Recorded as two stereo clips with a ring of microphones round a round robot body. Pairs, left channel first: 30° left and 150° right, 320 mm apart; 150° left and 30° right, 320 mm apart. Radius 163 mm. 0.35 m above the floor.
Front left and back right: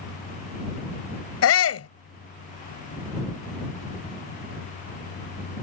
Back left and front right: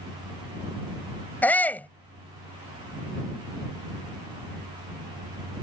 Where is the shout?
65° left.